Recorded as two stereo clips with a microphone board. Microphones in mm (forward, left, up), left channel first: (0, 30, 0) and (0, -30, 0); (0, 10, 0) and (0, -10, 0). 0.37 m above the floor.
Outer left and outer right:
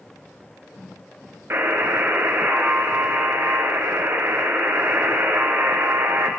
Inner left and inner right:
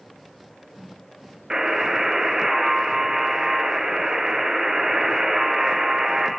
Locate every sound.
1.5 s a buzzer: 40° right (ahead or behind), 1.0 m